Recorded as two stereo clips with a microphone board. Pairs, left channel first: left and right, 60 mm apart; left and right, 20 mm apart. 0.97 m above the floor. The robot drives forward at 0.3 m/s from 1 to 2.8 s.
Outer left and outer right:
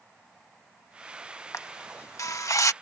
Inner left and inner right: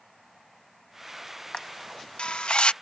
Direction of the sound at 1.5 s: 50° left (ahead or behind).